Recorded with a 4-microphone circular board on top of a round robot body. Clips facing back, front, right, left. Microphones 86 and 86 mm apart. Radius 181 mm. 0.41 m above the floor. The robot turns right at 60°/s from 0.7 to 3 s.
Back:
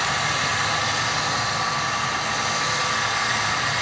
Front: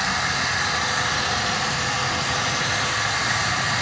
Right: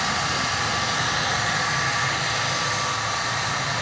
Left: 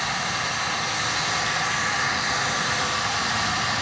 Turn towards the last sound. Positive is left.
turn(degrees=65)